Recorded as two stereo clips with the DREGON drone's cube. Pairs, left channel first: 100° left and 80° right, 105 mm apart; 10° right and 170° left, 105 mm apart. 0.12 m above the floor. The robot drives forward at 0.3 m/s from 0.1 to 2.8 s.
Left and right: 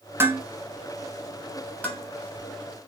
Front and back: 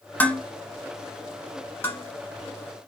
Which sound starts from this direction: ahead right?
Dishes clattering, at 0.2 s.